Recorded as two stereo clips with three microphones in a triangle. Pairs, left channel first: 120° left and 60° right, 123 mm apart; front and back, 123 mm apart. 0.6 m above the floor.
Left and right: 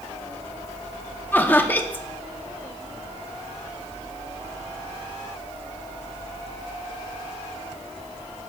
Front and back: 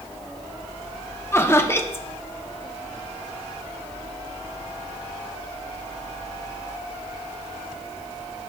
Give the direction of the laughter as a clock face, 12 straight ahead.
10 o'clock.